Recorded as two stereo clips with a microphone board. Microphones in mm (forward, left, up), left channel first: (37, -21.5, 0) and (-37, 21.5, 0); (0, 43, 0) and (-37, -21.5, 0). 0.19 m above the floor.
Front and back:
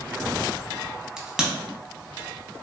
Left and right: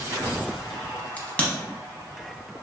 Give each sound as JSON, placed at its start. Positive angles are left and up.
{"t": 1.2, "sound": "a crack", "azimuth_deg": 80, "distance_m": 0.7}